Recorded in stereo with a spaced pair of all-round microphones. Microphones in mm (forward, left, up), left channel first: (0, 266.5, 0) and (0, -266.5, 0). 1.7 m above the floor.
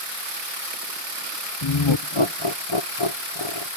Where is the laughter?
50° left (ahead or behind).